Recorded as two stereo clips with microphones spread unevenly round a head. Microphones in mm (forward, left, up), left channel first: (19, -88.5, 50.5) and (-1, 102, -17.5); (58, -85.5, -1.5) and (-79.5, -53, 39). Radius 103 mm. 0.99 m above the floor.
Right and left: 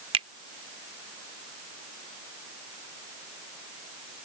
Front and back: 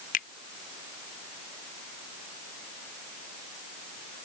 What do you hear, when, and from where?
0.1 s a finger snap: 30° left